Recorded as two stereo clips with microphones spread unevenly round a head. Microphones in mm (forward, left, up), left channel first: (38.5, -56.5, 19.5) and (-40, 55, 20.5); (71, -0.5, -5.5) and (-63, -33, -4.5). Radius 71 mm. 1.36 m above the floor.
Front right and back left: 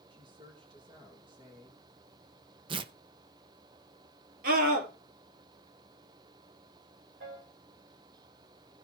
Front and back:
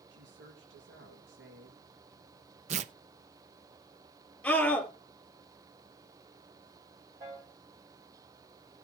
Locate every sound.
0.1 s a woman speaking: 175° right, 2.5 m
2.7 s tearing paper: 170° left, 0.6 m
4.4 s a scream: 100° left, 4 m
7.2 s a piano: 125° left, 8.5 m